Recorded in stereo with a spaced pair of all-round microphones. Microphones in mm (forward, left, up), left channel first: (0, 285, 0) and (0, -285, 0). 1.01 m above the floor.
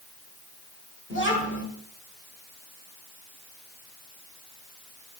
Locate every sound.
1.1 s a child speaking: 20° left (ahead or behind), 1.8 m